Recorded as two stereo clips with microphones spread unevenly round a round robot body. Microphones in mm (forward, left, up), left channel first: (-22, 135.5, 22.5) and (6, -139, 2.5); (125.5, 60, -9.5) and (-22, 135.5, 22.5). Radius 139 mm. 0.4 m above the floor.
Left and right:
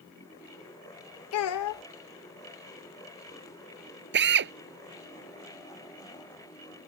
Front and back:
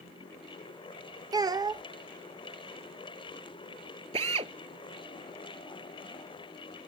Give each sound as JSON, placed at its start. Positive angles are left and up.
{"t": 1.3, "sound": "a child speaking", "azimuth_deg": 80}
{"t": 4.1, "sound": "a drill", "azimuth_deg": -135}